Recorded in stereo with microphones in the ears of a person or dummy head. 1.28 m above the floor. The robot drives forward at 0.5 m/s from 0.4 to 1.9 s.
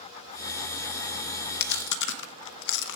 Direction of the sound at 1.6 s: 65° left (ahead or behind).